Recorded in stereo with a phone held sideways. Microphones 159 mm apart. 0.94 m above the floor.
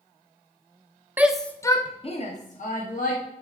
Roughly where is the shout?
Centre.